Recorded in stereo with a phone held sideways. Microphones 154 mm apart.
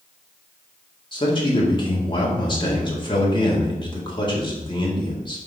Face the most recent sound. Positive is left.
turn(degrees=30)  # may be behind; listen again after turning